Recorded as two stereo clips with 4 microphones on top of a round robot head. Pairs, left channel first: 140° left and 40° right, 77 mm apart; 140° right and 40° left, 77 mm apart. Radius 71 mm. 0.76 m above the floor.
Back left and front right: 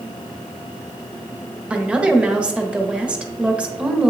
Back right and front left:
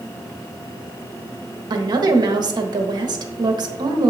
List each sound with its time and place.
1.7 s a woman speaking: 35° left, 1.2 m